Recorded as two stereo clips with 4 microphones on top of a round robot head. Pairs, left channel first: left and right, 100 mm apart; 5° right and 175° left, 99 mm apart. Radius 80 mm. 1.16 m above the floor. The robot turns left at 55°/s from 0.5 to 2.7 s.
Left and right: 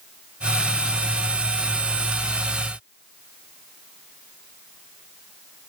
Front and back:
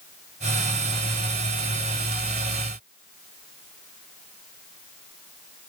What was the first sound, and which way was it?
Only background noise.